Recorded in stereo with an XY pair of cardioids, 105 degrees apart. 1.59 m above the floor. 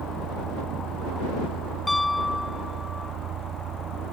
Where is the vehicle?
70° right.